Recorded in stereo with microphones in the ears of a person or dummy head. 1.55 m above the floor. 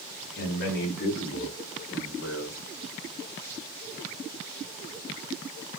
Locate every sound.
0.4 s a man speaking: 50° left (ahead or behind), 1.0 m; by 2.6 s 85° left, 1.8 m